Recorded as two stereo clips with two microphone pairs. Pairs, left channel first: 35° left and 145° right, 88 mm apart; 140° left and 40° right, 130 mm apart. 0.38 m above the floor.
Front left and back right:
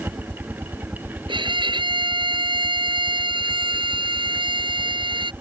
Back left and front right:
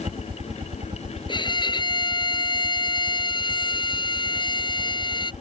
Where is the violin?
170° right.